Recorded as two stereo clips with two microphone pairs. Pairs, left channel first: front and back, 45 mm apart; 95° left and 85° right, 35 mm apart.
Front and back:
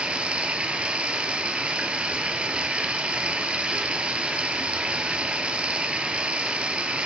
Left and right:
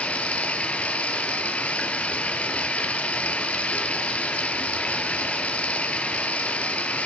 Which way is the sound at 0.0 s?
130° left.